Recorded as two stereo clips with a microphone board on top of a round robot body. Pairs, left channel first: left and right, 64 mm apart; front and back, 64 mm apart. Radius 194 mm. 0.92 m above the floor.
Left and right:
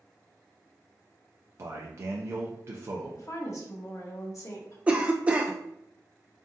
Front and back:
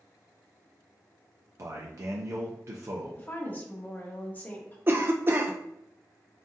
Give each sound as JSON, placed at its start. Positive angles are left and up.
{"t": 1.6, "sound": "a man speaking", "azimuth_deg": -140, "distance_m": 0.6}
{"t": 3.2, "sound": "a woman speaking", "azimuth_deg": 60, "distance_m": 1.3}
{"t": 4.9, "sound": "a cough", "azimuth_deg": -150, "distance_m": 0.6}